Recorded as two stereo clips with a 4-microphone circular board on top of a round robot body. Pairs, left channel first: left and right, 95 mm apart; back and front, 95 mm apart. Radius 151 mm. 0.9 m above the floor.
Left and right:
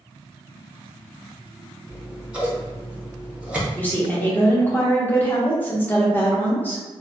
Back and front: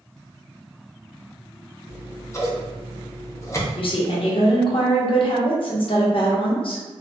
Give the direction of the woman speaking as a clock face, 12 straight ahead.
7 o'clock.